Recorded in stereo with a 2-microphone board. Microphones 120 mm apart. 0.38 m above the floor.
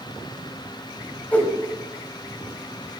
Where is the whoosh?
15° left (ahead or behind), 1.5 m.